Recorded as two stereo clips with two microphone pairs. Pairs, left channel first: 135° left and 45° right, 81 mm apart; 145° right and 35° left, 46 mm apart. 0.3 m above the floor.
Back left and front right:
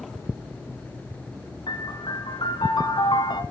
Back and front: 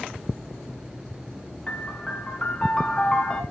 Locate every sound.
1.7 s a piano: 150° left, 2.5 m